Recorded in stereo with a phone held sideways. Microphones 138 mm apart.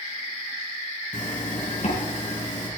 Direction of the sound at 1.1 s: 60° left (ahead or behind).